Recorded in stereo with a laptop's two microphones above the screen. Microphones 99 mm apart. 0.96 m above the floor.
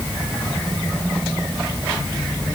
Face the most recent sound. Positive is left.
No sound to turn to.